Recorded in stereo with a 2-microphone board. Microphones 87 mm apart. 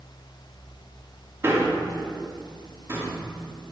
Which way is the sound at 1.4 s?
30° right (ahead or behind).